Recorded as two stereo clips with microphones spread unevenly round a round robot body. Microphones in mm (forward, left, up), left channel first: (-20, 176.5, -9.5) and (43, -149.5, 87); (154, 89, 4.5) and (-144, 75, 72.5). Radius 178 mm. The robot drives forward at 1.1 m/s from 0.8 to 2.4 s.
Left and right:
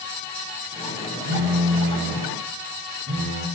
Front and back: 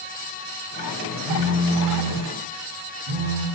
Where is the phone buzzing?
135° right, 6 m; by 3.5 s 140° right, 7 m.